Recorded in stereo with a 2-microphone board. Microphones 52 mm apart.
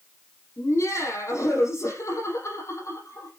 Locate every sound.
0.6 s laughter: 70° left (ahead or behind), 9.5 m